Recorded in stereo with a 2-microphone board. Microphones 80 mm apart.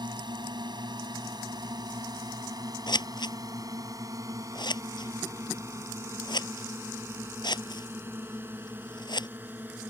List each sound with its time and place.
0.0 s a drone: 65° right (ahead or behind); by 9.9 s 25° right (ahead or behind)
2.9 s scissors: 65° left (ahead or behind)